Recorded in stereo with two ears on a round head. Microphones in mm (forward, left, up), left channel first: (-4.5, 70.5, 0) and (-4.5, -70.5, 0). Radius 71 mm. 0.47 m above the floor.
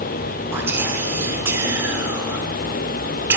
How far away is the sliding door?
No sliding door in this recording.